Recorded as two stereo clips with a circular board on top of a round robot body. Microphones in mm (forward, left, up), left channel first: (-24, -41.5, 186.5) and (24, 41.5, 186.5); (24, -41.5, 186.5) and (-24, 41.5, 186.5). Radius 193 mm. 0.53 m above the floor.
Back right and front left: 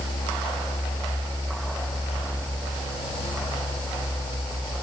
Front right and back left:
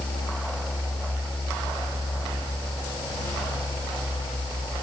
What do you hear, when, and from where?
Only background noise.